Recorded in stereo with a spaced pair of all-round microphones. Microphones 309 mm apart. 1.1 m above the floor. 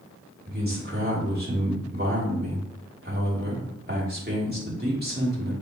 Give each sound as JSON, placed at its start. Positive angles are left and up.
{"t": 0.5, "sound": "a man speaking", "side_deg": -30, "distance_m": 2.5}